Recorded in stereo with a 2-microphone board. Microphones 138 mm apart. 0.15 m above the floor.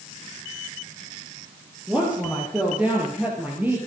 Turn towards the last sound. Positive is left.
turn(degrees=-15)  # may be behind; listen again after turning